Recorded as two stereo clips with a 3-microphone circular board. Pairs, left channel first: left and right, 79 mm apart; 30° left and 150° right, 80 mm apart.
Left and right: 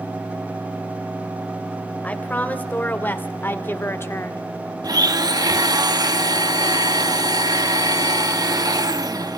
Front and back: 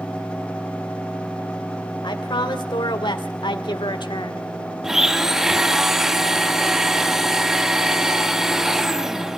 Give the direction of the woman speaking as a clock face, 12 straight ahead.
11 o'clock.